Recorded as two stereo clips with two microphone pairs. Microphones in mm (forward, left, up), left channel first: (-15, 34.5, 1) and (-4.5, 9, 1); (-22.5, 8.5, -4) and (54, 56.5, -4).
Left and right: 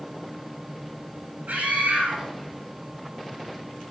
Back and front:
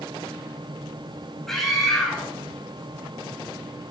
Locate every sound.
1.5 s a scream: 60° right, 5 m